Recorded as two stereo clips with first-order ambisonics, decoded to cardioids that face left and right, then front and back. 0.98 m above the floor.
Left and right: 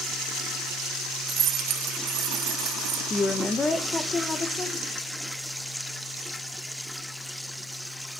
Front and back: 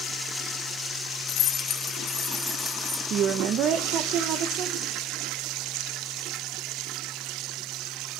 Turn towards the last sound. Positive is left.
turn(degrees=160)